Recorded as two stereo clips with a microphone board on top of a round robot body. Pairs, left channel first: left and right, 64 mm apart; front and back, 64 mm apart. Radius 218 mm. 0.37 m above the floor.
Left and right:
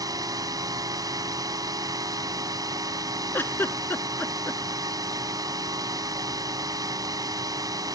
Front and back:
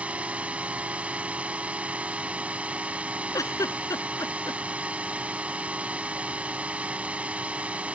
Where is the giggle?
35° left.